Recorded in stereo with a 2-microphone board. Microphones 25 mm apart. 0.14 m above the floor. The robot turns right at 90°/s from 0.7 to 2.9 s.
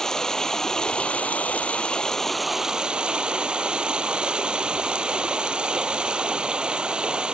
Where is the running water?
25° left, 1.0 m; by 7.3 s 135° right, 1.0 m.